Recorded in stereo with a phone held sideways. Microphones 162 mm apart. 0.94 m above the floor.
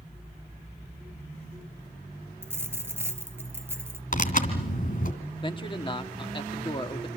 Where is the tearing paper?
55° left (ahead or behind), 3 m.